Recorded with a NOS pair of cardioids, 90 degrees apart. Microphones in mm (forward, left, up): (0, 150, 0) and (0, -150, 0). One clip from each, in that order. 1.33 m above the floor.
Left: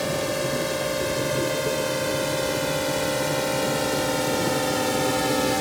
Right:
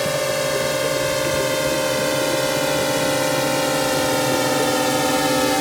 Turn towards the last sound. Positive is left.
turn(degrees=-30)